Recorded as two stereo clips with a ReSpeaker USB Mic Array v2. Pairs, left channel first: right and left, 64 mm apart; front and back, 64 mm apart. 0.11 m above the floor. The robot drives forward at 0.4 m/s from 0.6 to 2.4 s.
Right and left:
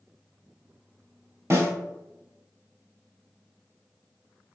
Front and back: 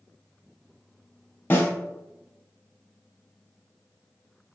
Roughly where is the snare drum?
Ahead left.